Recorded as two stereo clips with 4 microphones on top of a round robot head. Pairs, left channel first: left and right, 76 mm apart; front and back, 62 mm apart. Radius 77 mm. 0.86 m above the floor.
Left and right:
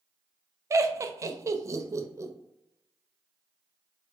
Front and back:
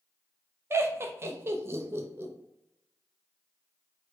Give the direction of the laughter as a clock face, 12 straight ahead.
5 o'clock.